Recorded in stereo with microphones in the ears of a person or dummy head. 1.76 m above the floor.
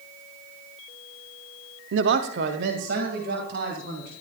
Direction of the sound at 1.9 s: 75° right (ahead or behind).